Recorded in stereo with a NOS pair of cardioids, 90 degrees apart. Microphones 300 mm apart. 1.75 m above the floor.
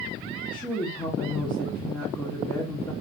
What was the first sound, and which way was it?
A woman speaking, 15° left.